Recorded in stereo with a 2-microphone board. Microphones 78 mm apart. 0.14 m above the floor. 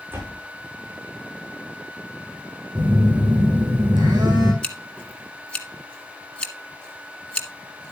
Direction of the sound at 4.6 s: 15° left (ahead or behind).